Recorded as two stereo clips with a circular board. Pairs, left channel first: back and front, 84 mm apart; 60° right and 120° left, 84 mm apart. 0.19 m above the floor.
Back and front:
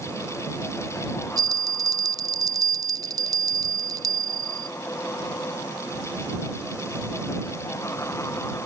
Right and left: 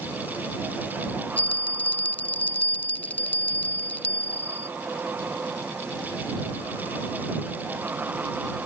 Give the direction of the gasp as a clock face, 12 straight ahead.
I don't hear a gasp.